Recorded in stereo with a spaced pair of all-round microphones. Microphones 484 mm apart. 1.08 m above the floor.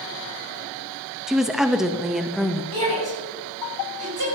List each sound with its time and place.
1.3 s a woman speaking: centre (ahead or behind), 1.4 m
2.7 s a shout: 50° right (ahead or behind), 6.5 m